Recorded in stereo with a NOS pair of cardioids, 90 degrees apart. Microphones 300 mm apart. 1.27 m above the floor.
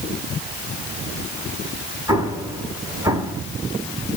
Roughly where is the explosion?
Ahead.